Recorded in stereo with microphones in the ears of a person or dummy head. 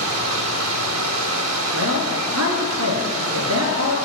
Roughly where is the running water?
Right.